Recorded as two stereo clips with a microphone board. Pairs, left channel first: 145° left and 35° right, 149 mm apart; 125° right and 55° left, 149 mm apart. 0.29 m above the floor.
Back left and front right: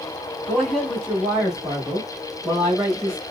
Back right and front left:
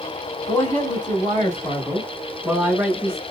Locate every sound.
0.5 s a man speaking: 130° right, 1.8 m; by 3.2 s 10° left, 1.5 m